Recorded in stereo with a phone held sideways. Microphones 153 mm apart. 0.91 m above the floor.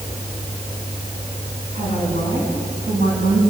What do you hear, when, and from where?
1.7 s a woman speaking: 80° right, 9.5 m